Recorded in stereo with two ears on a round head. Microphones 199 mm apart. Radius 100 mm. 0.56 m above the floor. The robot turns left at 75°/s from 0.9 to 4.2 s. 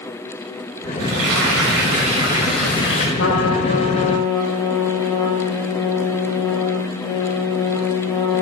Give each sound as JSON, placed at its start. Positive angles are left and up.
{"t": 1.0, "sound": "frying", "azimuth_deg": -65, "distance_m": 2.5}
{"t": 3.2, "sound": "a trumpet", "azimuth_deg": 95, "distance_m": 1.2}